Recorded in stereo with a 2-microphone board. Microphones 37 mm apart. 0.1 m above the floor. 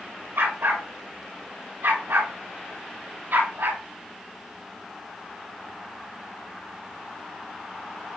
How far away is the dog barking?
About 4.5 m.